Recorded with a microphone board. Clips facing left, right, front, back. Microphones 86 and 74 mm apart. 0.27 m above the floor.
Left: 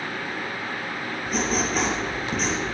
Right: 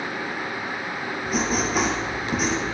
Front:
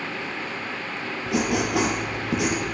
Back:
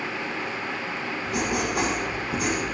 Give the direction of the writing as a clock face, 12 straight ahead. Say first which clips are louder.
Right 1 dB, front 4 dB; 12 o'clock.